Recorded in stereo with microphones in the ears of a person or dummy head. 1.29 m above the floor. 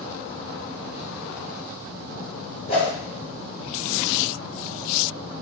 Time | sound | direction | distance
2.7 | a whoosh | 45° left (ahead or behind) | 1.9 m